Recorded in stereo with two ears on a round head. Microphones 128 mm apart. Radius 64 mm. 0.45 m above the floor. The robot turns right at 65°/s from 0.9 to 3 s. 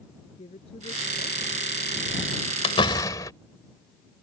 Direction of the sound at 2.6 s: 45° left (ahead or behind).